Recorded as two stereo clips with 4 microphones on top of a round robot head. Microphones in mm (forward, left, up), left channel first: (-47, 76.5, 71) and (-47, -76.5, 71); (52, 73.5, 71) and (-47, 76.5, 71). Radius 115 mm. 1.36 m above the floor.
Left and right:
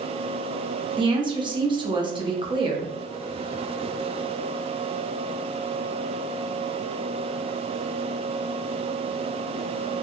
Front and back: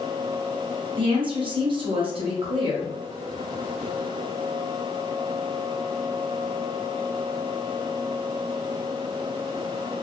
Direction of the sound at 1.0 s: 150° right.